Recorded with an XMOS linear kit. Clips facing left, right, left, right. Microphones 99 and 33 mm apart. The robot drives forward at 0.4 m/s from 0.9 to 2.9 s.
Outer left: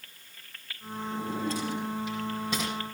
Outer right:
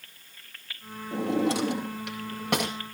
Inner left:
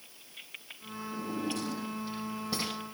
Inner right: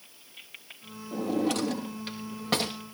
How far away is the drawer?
About 2 m.